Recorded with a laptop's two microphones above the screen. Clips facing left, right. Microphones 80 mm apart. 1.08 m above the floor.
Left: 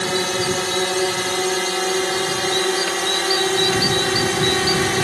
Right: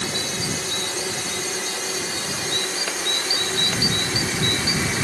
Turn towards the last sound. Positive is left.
turn(degrees=65)  # may be behind; listen again after turning